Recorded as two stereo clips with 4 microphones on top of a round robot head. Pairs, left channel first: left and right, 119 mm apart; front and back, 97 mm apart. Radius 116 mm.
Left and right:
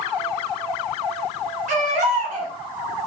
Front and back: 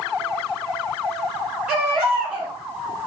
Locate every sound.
1.7 s a baby crying: 95° right, 3 m